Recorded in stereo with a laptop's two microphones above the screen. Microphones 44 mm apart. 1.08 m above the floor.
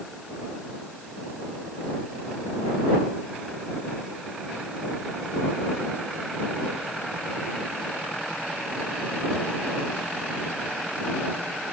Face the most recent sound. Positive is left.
No sound to turn to.